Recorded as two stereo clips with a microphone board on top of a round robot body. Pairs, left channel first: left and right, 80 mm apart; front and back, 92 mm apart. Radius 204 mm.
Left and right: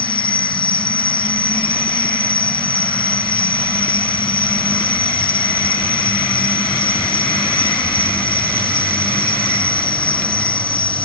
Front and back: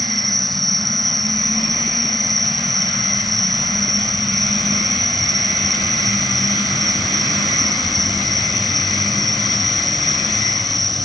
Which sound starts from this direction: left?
An insect, at 0.0 s.